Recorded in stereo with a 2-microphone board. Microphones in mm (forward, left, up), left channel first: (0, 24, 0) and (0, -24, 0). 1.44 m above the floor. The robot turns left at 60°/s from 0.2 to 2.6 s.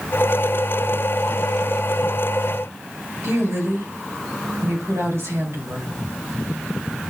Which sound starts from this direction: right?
A woman speaking, at 3.2 s.